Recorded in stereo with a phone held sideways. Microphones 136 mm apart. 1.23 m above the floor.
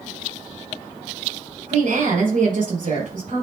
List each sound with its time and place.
1.7 s a woman speaking: 80° right, 4 m